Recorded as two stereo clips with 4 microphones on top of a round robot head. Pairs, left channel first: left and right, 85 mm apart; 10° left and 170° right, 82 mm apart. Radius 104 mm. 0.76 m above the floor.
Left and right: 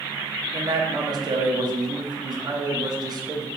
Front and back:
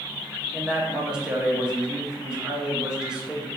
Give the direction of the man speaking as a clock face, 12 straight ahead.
3 o'clock.